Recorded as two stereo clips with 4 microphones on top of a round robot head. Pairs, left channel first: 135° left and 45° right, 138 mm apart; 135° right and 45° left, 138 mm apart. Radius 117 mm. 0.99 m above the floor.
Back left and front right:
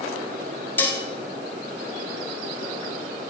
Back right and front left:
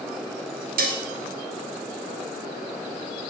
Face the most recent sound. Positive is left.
turn(degrees=60)